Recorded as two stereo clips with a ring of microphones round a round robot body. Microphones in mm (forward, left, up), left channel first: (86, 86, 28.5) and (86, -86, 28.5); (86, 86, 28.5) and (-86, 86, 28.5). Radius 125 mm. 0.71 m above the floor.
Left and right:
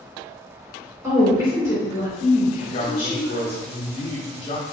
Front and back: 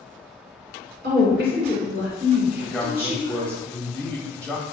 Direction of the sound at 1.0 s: 165° right.